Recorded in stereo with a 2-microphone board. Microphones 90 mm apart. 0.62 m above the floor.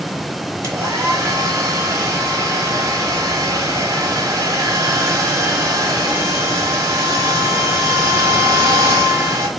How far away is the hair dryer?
About 1.1 m.